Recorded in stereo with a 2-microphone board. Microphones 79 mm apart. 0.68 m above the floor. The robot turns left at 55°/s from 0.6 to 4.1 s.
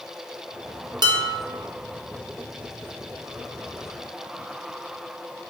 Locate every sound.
1.0 s dishes clattering: 60° right (ahead or behind), 0.5 m; by 1.4 s 40° right (ahead or behind), 0.5 m